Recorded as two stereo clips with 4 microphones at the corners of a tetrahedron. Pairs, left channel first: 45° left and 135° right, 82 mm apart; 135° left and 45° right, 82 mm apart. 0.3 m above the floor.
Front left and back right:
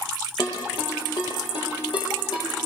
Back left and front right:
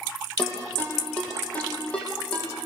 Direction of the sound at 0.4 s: 60° left.